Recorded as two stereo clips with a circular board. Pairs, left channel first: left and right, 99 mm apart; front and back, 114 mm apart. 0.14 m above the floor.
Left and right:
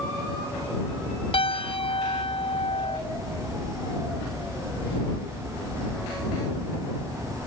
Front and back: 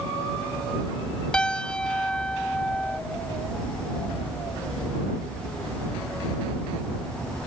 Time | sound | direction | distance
1.3 | a piano | 80° left | ?